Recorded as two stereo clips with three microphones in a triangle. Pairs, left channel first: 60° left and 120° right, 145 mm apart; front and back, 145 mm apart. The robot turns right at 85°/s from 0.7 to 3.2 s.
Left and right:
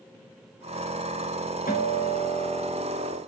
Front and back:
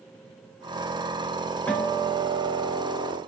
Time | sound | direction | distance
1.7 | a guitar | 80° left | 4.5 m